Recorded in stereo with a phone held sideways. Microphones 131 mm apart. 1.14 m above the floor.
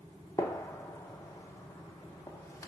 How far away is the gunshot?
About 0.8 m.